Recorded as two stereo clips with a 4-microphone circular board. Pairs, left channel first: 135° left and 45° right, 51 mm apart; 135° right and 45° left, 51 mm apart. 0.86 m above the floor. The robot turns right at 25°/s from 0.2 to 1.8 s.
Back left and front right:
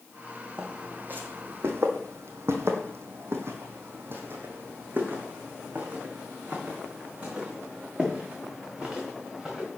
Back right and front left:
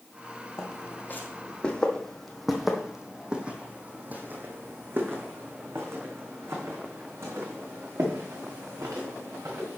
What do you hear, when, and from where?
0.6 s footsteps: 110° right, 1.9 m; by 9.7 s 30° left, 4 m